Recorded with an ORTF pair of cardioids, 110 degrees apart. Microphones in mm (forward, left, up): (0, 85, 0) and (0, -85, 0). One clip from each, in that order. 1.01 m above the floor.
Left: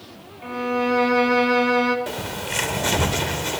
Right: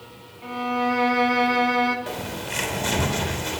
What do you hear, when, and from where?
0.4 s a violin: 20° left, 2.5 m
2.1 s a bird: 25° left, 3.5 m